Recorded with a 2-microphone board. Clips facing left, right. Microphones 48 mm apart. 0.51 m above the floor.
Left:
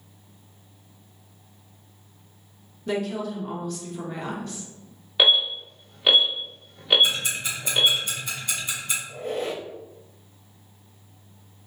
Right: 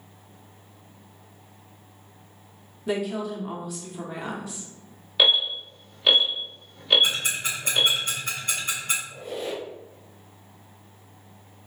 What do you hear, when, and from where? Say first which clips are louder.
2.9 s a woman speaking: even; 5° right (ahead or behind), 0.9 m
5.2 s an alarm: left 1 dB; 10° left (ahead or behind), 1.3 m
7.0 s ticking: even; 45° right (ahead or behind), 2 m
9.1 s a squeak: left 3 dB; 50° left (ahead or behind), 0.7 m